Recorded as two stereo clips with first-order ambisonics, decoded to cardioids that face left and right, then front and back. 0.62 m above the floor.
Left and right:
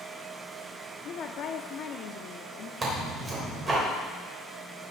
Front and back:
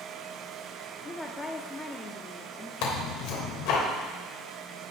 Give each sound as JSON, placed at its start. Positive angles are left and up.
{"t": 1.1, "sound": "a woman speaking", "azimuth_deg": 70, "distance_m": 0.7}
{"t": 2.8, "sound": "tearing paper", "azimuth_deg": -20, "distance_m": 3.0}